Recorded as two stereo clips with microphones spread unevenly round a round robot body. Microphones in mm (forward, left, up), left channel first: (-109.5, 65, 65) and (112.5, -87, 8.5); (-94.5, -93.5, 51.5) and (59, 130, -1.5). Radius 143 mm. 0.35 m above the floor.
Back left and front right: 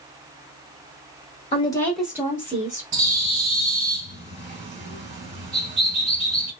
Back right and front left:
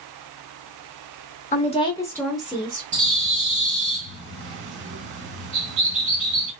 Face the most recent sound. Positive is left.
turn(degrees=15)